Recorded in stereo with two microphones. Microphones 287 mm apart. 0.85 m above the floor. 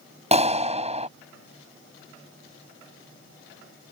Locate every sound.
0.3 s a clap: 25° right (ahead or behind)